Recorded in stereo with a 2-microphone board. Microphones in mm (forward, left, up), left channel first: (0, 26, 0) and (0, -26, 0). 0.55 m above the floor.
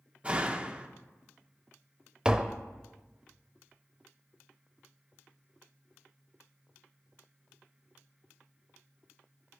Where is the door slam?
25° right (ahead or behind), 0.7 m.